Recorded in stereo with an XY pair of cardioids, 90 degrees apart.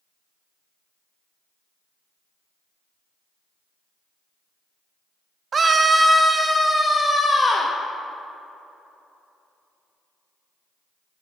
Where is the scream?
45° right, 0.6 m; by 7.7 s 40° left, 1.0 m.